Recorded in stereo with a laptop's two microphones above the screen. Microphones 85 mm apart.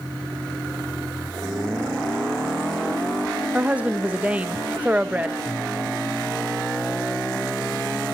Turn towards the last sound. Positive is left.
turn(degrees=-15)  # may be behind; listen again after turning